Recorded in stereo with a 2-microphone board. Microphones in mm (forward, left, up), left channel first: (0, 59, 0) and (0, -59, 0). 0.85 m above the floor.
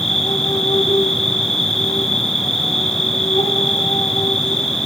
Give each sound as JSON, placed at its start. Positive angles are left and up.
{"t": 0.0, "sound": "an insect", "side_deg": 60, "distance_m": 2.5}